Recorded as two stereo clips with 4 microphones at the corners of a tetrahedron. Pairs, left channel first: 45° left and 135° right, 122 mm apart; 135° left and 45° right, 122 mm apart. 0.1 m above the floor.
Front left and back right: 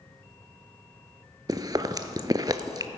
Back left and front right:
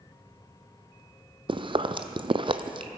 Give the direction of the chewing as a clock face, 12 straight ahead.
3 o'clock.